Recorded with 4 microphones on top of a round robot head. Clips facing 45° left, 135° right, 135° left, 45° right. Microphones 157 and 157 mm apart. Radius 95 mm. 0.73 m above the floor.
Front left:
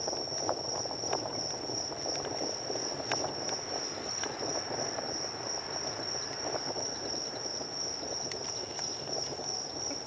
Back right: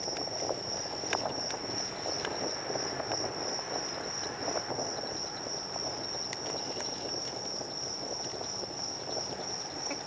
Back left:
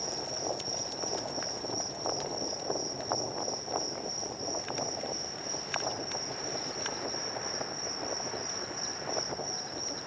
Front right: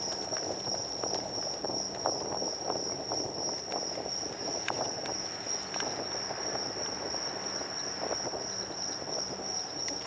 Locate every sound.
0.0 s an insect: 75° left, 7 m